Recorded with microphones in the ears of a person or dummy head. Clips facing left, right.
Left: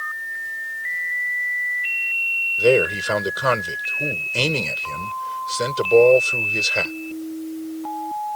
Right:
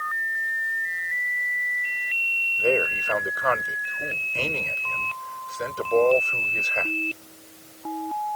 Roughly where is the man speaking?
Left.